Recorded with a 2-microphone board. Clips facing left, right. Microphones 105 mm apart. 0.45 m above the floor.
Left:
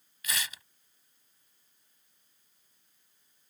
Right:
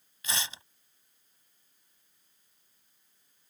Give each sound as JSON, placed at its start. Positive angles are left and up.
{"t": 0.2, "sound": "tearing paper", "side_deg": -30}